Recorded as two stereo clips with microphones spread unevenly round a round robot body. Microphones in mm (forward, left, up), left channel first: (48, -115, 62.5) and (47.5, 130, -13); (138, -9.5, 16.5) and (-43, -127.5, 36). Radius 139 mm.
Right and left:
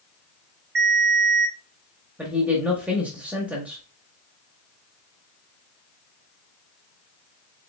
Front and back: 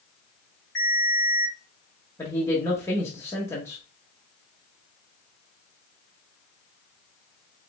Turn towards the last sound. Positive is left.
turn(degrees=80)